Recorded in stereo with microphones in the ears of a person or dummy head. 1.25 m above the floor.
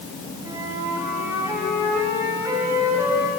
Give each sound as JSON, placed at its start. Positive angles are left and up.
{"t": 0.5, "sound": "a flute", "side_deg": -10, "distance_m": 3.0}